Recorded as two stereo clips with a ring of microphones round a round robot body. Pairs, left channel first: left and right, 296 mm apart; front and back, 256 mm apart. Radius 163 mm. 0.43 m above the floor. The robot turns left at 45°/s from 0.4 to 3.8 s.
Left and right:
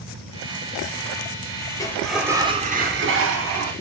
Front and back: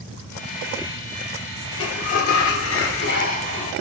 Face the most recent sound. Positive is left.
turn(degrees=-75)